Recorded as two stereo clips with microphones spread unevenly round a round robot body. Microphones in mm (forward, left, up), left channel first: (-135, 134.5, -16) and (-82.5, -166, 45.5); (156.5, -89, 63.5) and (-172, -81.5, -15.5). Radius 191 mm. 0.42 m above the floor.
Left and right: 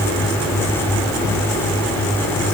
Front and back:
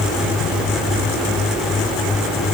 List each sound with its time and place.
Only background noise.